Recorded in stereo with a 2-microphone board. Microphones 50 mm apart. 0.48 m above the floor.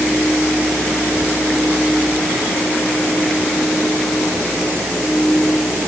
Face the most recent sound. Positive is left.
No sound to turn to.